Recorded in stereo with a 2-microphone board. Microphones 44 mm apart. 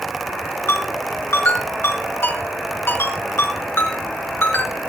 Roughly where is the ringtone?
Left.